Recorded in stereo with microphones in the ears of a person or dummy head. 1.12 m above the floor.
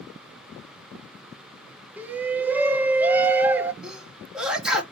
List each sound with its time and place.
2.0 s a shout: 5° right (ahead or behind), 0.7 m
3.8 s a sneeze: centre (ahead or behind), 1.8 m